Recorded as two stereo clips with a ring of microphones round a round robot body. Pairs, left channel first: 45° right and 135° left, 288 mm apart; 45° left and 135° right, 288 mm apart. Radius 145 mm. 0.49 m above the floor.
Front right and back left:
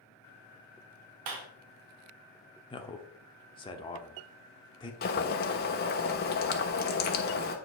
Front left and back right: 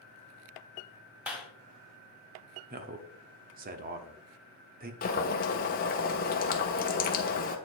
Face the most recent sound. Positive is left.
turn(degrees=0)